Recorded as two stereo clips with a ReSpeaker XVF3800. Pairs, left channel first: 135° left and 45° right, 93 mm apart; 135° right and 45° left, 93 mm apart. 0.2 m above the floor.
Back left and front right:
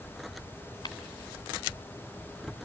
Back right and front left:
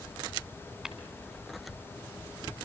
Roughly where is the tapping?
Behind left.